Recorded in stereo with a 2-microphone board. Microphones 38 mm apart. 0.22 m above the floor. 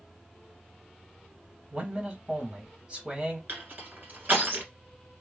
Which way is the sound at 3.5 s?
45° right (ahead or behind).